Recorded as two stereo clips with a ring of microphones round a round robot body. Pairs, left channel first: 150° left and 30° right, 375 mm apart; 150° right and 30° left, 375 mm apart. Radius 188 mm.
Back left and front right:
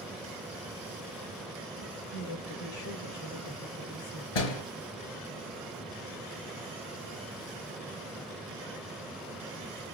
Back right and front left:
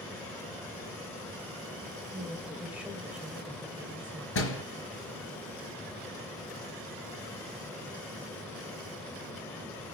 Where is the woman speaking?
115° left, 1.9 m.